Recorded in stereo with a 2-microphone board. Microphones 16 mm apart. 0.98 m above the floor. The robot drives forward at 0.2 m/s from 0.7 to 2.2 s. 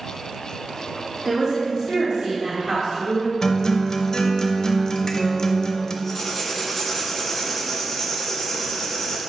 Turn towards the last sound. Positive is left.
turn(degrees=10)  # may be behind; listen again after turning